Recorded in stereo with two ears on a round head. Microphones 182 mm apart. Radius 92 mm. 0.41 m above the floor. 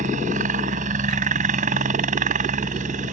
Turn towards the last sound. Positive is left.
turn(degrees=-35)  # may be behind; listen again after turning